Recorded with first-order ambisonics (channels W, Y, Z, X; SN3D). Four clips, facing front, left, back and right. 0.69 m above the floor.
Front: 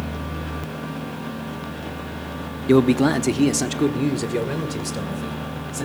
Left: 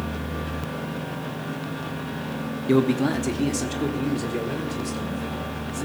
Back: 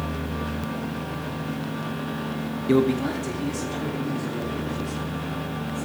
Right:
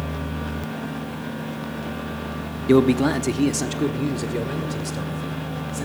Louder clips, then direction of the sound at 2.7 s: Right 4 dB, front 5 dB; 50° right.